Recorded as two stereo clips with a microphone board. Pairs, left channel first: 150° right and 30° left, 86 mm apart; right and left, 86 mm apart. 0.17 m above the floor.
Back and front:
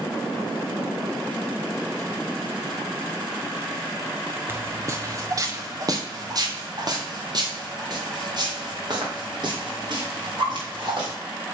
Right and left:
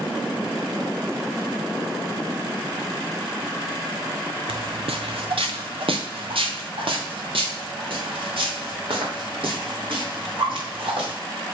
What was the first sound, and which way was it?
Footsteps, 95° left.